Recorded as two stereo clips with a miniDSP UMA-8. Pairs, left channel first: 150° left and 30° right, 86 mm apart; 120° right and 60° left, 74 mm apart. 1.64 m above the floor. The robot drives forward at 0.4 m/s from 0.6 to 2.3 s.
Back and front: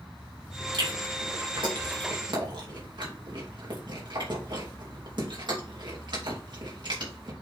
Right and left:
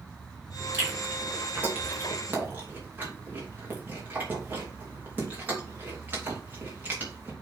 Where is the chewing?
Straight ahead, 3.5 m.